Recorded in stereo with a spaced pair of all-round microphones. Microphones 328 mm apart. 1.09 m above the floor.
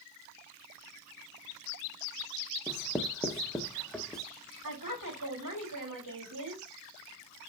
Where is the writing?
Centre (ahead or behind), 0.6 m.